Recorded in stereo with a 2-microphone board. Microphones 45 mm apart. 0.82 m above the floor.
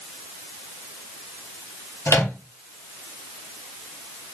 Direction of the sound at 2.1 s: 75° left (ahead or behind).